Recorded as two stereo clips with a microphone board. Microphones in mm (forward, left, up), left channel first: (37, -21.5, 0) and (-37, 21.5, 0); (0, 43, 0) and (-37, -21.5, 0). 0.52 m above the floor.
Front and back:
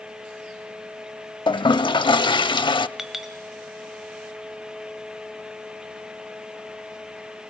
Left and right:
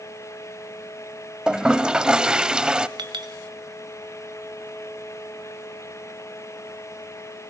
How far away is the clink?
About 1.6 m.